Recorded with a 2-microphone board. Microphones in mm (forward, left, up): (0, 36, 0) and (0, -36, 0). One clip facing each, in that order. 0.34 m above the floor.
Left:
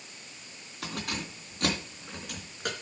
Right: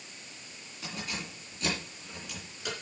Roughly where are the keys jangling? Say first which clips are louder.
Left 3 dB; left.